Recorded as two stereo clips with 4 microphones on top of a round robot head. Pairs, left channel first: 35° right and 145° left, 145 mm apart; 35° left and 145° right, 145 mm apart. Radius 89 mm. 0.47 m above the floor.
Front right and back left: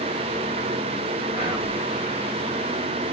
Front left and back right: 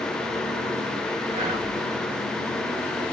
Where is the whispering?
175° right, 2 m.